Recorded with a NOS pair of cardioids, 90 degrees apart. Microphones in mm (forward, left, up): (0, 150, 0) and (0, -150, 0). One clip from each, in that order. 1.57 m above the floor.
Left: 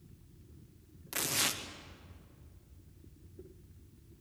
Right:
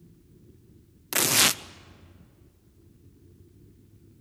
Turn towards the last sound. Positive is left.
turn(degrees=-60)